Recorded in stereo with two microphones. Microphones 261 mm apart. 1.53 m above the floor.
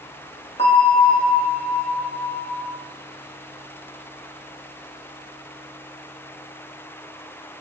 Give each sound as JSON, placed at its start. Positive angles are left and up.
{"t": 0.6, "sound": "a bell", "side_deg": 25, "distance_m": 0.9}